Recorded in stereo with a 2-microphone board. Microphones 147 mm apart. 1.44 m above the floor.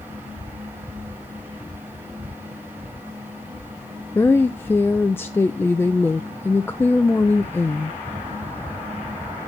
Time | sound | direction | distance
4.2 | a woman speaking | 15° left (ahead or behind) | 0.7 m